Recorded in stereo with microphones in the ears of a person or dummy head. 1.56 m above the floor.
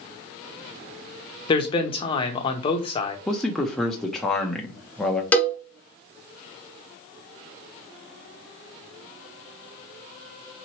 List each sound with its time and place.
1.5 s a man speaking: 30° left (ahead or behind), 0.7 m
3.3 s a man speaking: 5° left (ahead or behind), 0.6 m
5.3 s a cowbell: 5° left (ahead or behind), 0.7 m